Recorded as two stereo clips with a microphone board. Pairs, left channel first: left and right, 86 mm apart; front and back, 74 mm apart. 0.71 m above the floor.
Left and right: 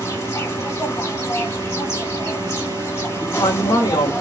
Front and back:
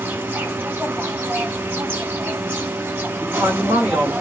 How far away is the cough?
I don't hear a cough.